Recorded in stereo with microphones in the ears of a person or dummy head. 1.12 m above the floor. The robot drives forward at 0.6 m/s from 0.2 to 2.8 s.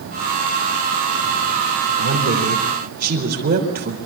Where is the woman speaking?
45° right (ahead or behind), 3.5 m; by 4.0 s 40° right (ahead or behind), 4 m.